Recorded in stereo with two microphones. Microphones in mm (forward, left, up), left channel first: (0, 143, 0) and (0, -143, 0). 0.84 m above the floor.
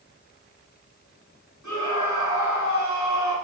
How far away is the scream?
About 7 m.